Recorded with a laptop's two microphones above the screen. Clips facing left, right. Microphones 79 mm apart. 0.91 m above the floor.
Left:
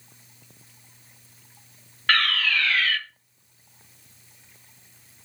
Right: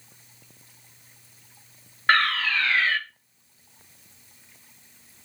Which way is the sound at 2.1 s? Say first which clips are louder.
Right 2 dB; 25° right (ahead or behind).